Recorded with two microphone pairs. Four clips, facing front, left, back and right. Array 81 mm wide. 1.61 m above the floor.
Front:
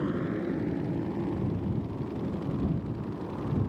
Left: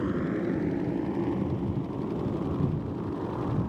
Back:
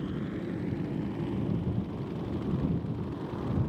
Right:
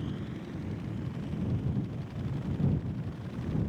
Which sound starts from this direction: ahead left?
A motorcycle, at 0.0 s.